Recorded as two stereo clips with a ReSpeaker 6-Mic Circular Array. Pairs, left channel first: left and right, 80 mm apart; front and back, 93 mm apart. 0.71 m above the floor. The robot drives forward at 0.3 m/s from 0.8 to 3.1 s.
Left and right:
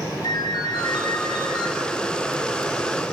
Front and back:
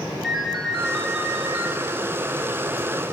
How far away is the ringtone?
About 0.8 m.